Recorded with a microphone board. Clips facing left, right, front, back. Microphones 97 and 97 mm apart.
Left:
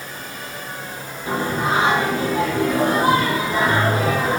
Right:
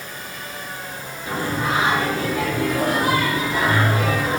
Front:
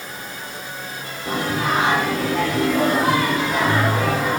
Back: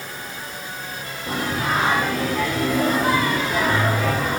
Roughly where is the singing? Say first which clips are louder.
Left 2 dB, front 2 dB; ahead left.